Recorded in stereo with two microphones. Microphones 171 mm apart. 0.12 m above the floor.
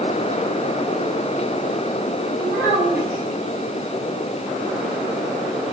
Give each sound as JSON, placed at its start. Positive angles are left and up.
{"t": 2.4, "sound": "a child speaking", "side_deg": -10, "distance_m": 2.0}